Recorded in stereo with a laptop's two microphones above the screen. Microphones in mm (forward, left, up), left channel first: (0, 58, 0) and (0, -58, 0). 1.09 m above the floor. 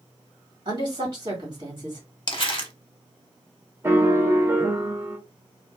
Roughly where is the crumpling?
Left.